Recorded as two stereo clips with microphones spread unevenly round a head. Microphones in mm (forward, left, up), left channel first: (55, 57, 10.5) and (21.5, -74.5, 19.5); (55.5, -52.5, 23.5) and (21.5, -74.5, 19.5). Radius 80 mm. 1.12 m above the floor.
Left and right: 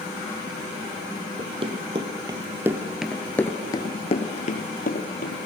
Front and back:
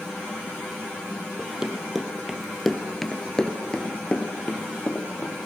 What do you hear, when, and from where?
1.4 s running footsteps: 65° right, 2 m; by 5.4 s 90° left, 2 m